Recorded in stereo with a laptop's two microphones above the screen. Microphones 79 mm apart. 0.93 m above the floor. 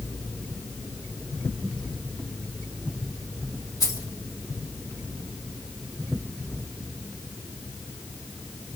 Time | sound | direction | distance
3.8 | keys jangling | 50° left (ahead or behind) | 2.5 m